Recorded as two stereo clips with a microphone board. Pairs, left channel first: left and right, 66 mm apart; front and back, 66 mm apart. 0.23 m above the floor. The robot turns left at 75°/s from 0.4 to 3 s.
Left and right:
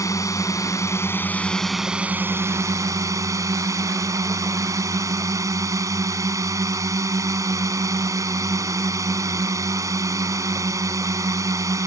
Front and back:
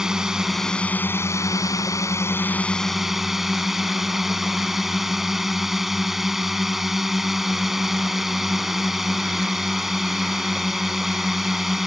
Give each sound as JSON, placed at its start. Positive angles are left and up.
{"t": 0.0, "sound": "a drone", "azimuth_deg": 100}